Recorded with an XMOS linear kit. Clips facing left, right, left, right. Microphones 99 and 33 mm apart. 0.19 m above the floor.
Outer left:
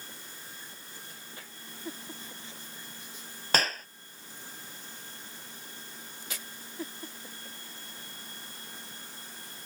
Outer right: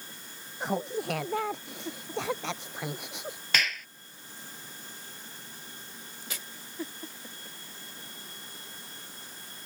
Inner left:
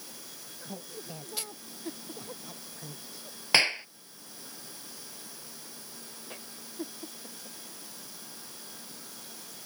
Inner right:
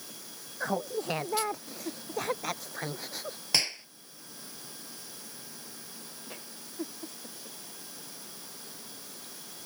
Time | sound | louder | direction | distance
0.6 | laughter | outer right 19 dB, inner right 13 dB | 80° right | ?
3.5 | a clap | outer left 3 dB, inner left 6 dB | 40° left (ahead or behind) | ?